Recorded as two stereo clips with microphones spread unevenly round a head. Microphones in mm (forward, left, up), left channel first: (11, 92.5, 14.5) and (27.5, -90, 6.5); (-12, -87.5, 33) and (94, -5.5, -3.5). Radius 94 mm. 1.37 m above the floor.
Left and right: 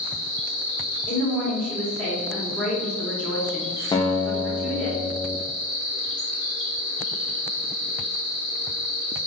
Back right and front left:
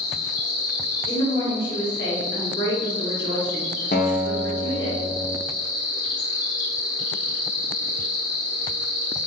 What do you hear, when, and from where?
0.0 s an insect: 155° right, 1.4 m
1.1 s a woman speaking: straight behind, 1.3 m
3.9 s a guitar: 165° left, 0.5 m